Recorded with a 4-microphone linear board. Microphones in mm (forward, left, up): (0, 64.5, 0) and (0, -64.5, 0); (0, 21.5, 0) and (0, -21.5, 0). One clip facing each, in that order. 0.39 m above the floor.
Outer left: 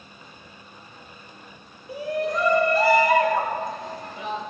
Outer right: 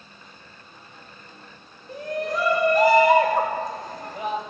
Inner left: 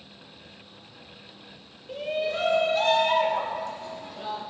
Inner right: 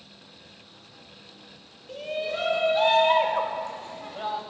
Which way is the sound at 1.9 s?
15° left (ahead or behind).